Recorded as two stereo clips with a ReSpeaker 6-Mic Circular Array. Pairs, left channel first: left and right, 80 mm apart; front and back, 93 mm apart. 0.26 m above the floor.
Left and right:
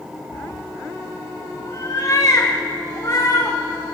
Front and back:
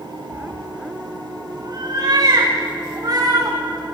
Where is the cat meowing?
125° left, 1.3 m; by 3.6 s 130° left, 4 m.